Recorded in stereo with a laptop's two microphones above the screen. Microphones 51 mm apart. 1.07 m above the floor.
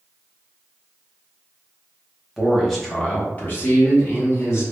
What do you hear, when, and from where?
2.4 s a man speaking: 10° right (ahead or behind), 0.7 m; by 4.6 s 50° left (ahead or behind), 1.1 m